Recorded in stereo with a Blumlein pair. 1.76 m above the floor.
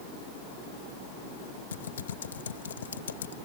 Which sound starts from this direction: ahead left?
Typing on a keyboard, at 1.7 s.